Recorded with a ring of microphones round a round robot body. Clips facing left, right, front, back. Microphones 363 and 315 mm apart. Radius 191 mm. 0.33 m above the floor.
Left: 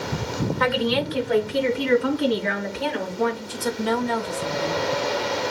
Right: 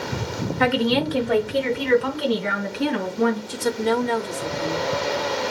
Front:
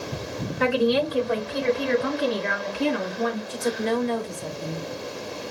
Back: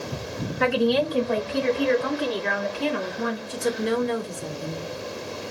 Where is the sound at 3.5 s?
110° right, 1.1 m.